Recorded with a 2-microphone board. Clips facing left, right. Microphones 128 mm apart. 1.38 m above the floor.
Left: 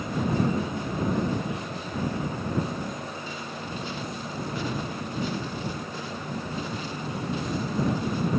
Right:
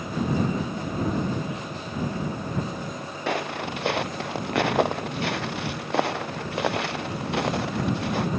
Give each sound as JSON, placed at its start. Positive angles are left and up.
{"t": 3.3, "sound": "footsteps", "side_deg": -70}